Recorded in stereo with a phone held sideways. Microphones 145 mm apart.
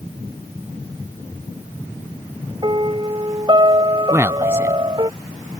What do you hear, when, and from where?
2.6 s a piano: 30° right (ahead or behind)
4.1 s a man speaking: 15° right (ahead or behind)